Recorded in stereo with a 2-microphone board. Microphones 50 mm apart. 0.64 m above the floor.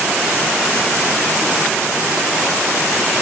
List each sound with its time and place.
Only background noise.